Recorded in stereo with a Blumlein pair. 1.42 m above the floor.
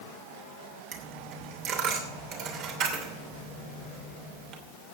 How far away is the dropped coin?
About 2.5 m.